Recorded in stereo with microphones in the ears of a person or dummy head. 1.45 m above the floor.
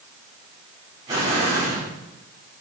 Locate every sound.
1.1 s an explosion: 15° right (ahead or behind), 4.5 m